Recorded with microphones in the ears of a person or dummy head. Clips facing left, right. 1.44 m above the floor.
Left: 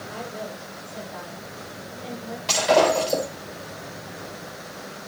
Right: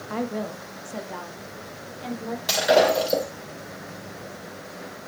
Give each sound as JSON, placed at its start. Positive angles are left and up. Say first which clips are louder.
{"t": 0.1, "sound": "a woman speaking", "louder": "right 8 dB", "side_deg": -65, "distance_m": 1.6}
{"t": 2.5, "sound": "breaking glass", "louder": "even", "side_deg": -20, "distance_m": 4.5}